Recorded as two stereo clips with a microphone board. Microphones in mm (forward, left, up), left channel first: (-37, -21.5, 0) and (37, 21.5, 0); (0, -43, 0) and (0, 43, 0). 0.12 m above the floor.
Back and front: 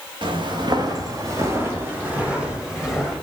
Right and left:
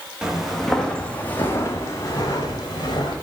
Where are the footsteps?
10° left, 1.6 m; by 3.1 s 55° right, 2.5 m.